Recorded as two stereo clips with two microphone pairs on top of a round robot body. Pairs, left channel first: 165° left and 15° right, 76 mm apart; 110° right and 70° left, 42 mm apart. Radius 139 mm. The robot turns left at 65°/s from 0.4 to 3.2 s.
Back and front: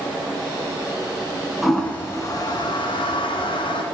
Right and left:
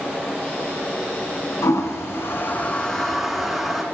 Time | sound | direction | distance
1.6 | a toilet flushing | 105° right | 0.9 m